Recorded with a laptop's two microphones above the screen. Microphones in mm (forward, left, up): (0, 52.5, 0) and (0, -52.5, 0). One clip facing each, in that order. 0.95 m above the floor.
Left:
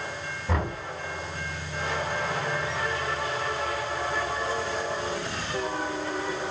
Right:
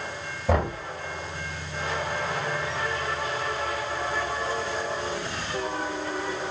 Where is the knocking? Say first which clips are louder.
Right 6 dB; 80° right, 5 m.